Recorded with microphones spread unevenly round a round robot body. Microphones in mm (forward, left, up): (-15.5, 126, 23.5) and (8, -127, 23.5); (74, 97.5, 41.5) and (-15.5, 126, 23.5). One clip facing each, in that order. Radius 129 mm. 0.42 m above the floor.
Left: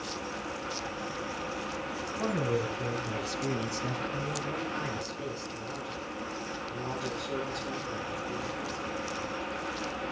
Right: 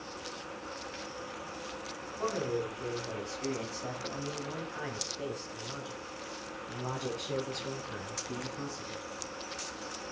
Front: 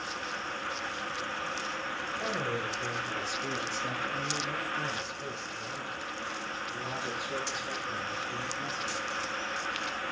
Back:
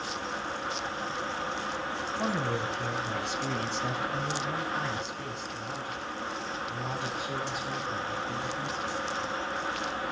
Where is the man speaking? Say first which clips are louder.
Left 2 dB, back 3 dB; 135° left, 3.5 m; by 9.0 s 145° right, 5 m.